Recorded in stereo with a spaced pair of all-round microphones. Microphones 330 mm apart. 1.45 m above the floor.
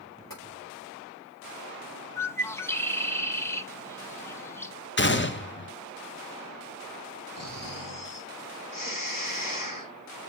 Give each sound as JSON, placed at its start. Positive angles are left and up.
{"t": 0.3, "sound": "tapping", "side_deg": 80, "distance_m": 4.5}
{"t": 2.2, "sound": "a bird", "side_deg": 10, "distance_m": 0.7}
{"t": 5.0, "sound": "a gunshot", "side_deg": 35, "distance_m": 0.7}
{"t": 7.4, "sound": "snoring", "side_deg": 75, "distance_m": 1.4}